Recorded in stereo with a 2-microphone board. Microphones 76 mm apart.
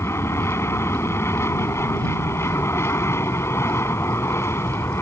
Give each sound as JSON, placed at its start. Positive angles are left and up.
{"t": 0.0, "sound": "an aircraft", "side_deg": 30}